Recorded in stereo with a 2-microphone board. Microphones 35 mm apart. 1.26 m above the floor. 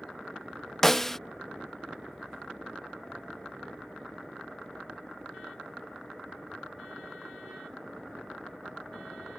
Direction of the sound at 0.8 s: 10° left (ahead or behind).